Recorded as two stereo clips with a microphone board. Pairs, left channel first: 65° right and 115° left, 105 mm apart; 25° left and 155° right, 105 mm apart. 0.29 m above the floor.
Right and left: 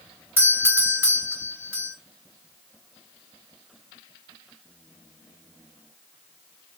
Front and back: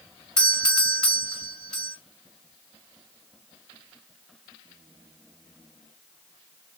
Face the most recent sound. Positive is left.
turn(degrees=90)